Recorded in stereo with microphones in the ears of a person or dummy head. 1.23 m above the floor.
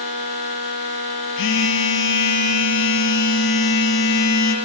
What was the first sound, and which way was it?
A phone buzzing, 60° left (ahead or behind).